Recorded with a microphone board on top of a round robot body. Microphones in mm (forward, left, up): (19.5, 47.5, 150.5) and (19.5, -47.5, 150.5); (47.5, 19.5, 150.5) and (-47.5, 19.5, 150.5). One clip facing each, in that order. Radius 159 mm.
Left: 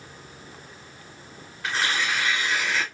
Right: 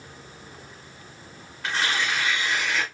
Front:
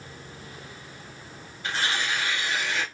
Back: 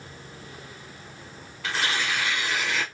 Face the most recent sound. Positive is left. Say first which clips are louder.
# even, back 1 dB
turn(degrees=180)